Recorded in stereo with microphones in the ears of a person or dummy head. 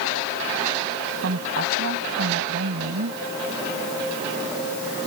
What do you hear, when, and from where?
1.2 s a woman speaking: 65° right (ahead or behind)